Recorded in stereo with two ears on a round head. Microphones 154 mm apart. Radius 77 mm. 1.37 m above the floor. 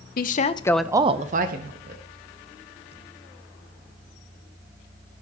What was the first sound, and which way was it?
A woman speaking, 55° left (ahead or behind).